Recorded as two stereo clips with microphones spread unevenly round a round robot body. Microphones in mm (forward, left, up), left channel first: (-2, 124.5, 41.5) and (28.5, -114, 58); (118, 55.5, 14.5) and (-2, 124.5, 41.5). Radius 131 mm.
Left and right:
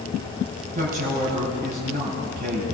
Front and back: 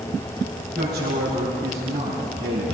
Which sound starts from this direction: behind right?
A man speaking, at 0.8 s.